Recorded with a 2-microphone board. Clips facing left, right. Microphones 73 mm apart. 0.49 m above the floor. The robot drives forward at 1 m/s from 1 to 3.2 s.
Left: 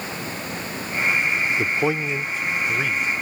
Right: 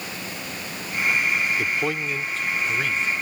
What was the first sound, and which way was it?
A man speaking, 20° left (ahead or behind).